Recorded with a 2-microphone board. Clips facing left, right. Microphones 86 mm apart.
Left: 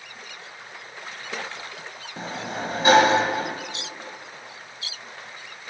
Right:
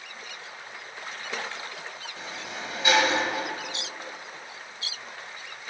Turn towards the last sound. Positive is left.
turn(degrees=40)  # may be behind; listen again after turning